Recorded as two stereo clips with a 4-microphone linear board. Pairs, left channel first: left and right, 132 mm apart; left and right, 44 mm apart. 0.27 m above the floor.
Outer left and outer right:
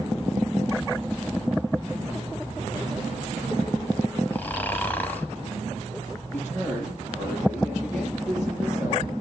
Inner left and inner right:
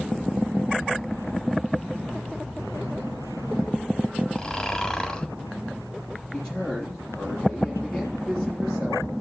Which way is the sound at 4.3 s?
15° left (ahead or behind).